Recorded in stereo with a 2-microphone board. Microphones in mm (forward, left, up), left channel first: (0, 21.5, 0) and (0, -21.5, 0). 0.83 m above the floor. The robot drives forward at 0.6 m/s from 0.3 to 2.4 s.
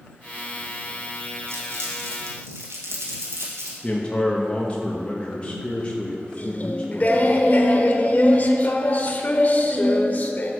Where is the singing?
40° left (ahead or behind), 1.0 m.